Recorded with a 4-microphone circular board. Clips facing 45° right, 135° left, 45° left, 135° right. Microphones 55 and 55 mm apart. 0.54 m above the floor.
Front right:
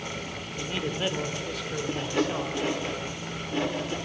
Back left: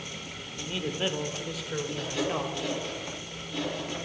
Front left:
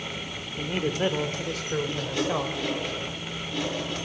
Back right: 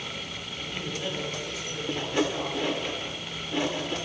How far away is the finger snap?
No finger snap in this recording.